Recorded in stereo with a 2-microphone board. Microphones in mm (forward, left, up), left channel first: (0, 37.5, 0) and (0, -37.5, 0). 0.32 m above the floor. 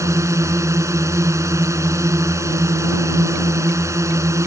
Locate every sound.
0.0 s a drone: 40° right (ahead or behind)